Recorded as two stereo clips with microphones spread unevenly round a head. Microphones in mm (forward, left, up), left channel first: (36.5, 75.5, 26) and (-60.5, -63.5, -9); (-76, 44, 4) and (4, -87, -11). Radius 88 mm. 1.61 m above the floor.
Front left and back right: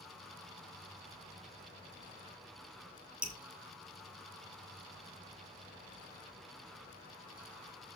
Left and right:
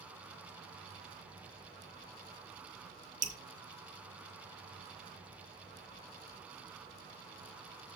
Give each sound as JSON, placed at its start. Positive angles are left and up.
{"t": 3.2, "sound": "dripping", "azimuth_deg": -30, "distance_m": 1.5}